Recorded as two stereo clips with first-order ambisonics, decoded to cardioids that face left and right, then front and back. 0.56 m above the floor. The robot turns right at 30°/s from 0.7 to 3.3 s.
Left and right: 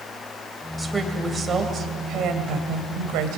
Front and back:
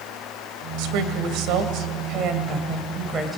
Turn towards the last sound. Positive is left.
turn(degrees=-105)